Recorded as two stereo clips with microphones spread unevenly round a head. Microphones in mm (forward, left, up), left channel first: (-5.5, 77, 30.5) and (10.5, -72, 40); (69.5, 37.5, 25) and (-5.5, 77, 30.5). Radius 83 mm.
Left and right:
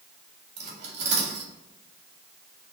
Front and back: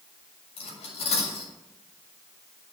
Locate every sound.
0.6 s cutlery clinking: 40° right, 2.0 m